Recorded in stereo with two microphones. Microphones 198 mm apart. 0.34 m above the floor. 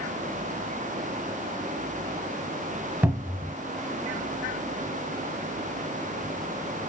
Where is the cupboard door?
10° right (ahead or behind), 0.6 m.